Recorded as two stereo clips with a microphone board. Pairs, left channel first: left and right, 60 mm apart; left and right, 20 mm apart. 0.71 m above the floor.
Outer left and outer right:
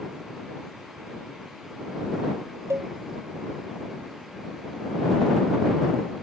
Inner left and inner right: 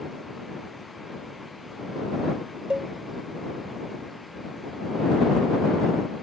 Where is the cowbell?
65° right (ahead or behind).